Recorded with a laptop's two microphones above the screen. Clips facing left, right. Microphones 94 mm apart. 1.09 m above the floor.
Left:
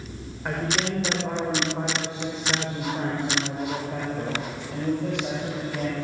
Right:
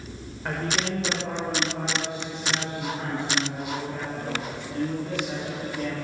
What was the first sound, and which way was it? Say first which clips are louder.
A man speaking: left 1 dB; 10° left (ahead or behind).